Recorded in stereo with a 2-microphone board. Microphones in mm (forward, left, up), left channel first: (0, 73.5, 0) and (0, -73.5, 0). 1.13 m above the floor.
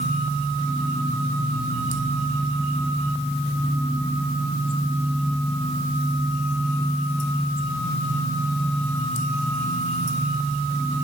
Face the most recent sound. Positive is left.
No sound to turn to.